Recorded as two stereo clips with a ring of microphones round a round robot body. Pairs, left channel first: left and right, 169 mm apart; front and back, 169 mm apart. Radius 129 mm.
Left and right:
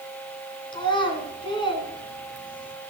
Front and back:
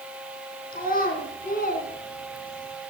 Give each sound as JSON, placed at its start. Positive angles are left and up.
{"t": 0.7, "sound": "a child speaking", "azimuth_deg": 30, "distance_m": 3.0}